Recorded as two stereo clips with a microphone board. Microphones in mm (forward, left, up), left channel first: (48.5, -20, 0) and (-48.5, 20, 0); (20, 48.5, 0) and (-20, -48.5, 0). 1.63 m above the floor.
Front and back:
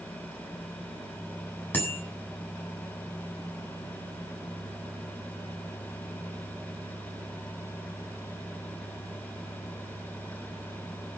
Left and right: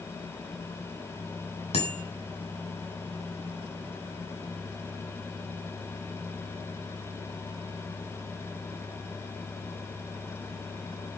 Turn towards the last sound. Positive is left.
turn(degrees=50)